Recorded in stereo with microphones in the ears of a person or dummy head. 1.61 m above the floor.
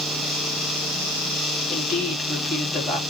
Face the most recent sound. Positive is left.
turn(degrees=5)  # may be behind; listen again after turning